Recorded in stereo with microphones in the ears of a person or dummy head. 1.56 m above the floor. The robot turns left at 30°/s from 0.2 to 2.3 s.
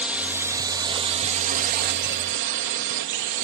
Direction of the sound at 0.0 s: 10° right.